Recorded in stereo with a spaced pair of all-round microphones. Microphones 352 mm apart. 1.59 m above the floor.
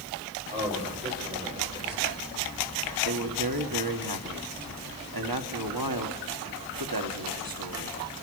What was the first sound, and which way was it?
A man speaking, 30° right (ahead or behind).